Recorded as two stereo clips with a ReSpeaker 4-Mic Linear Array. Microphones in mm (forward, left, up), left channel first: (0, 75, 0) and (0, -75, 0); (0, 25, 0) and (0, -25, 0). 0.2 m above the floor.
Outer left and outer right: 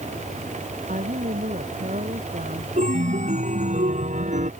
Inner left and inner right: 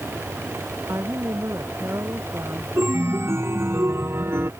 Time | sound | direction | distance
0.9 | a woman speaking | 60° right (ahead or behind) | ?
2.8 | a chime | 55° right (ahead or behind) | ?